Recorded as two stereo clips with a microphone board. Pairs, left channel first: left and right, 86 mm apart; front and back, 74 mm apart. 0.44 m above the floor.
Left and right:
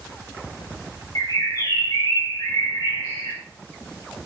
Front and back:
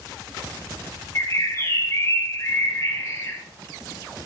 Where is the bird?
50° left, 6.5 m.